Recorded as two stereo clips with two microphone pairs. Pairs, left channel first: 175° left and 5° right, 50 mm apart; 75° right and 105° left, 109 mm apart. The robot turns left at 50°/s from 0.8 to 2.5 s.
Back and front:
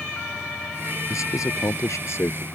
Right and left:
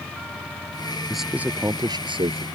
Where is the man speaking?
165° right; by 2.4 s 130° left.